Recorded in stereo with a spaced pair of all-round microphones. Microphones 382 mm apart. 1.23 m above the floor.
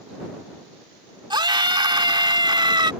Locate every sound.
1.3 s a scream: 10° right (ahead or behind)